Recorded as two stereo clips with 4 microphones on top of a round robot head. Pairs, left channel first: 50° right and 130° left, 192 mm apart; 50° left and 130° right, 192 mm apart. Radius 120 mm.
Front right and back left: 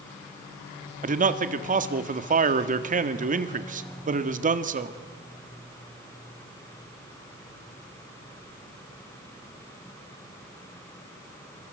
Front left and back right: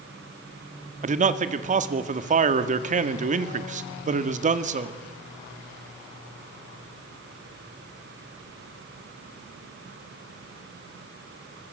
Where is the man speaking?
Straight behind, 1.8 m.